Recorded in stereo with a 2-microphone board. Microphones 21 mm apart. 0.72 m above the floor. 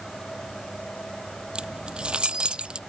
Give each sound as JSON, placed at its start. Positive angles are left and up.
{"t": 1.6, "sound": "keys jangling", "side_deg": -50}